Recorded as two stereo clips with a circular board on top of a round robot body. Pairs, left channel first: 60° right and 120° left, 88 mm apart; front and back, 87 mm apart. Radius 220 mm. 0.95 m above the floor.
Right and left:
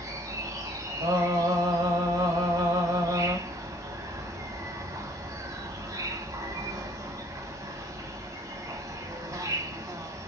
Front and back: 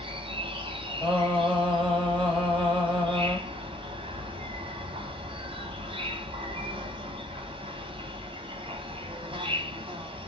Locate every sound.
0.0 s an insect: 170° left, 1.5 m
1.0 s singing: 125° left, 3 m